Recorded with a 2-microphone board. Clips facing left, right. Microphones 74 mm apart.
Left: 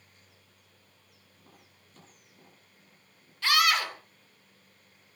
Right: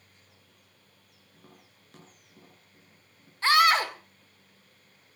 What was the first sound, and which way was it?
Tapping, 65° right (ahead or behind).